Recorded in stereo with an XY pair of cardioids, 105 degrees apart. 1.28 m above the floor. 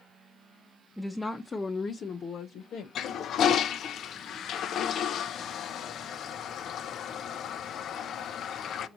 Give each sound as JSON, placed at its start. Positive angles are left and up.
{"t": 1.0, "sound": "a woman speaking", "azimuth_deg": 0, "distance_m": 0.9}
{"t": 3.0, "sound": "a toilet flushing", "azimuth_deg": 65, "distance_m": 0.6}